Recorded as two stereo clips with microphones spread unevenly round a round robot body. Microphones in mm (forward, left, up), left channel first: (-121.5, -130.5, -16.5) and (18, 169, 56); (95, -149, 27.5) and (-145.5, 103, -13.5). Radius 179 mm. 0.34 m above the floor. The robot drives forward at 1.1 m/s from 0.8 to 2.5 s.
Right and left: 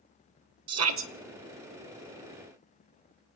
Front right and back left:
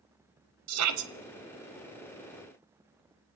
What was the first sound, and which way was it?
A shout, 110° left.